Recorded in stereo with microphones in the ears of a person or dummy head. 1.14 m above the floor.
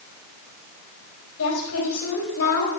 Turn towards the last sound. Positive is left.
turn(degrees=85)